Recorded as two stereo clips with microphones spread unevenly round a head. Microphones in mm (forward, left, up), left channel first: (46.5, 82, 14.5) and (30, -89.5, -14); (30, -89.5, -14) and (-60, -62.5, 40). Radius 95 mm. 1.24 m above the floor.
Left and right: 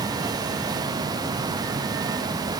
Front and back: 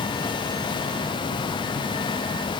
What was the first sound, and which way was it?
Only background noise.